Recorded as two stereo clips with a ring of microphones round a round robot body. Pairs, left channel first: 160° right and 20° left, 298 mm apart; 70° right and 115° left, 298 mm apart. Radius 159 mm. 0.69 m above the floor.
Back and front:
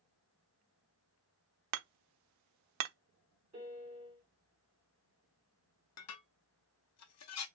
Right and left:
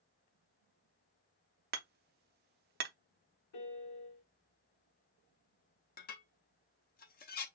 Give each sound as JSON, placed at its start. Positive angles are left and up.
{"t": 1.7, "sound": "hammering", "azimuth_deg": 55, "distance_m": 0.5}
{"t": 3.5, "sound": "a piano", "azimuth_deg": -50, "distance_m": 1.7}
{"t": 6.0, "sound": "dishes clattering", "azimuth_deg": -125, "distance_m": 0.7}